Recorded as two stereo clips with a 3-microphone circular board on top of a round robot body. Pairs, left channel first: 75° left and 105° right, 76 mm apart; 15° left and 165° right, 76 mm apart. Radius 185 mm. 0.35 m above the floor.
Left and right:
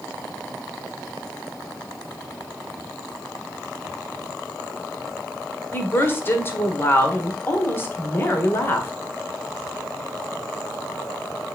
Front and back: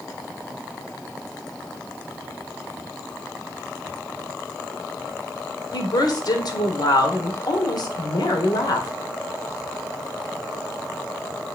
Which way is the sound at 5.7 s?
20° left.